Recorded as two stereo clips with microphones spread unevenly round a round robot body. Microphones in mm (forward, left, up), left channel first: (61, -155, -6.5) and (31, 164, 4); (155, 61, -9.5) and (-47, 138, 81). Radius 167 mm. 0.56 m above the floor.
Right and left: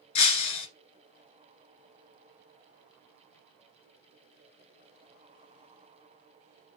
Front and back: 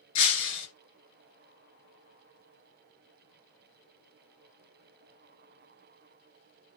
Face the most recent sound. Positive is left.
turn(degrees=-45)